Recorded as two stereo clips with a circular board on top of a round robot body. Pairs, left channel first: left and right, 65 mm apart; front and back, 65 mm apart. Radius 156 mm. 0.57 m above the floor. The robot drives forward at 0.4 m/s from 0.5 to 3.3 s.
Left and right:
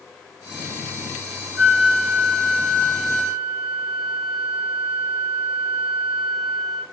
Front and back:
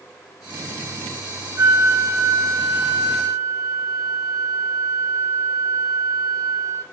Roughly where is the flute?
Behind.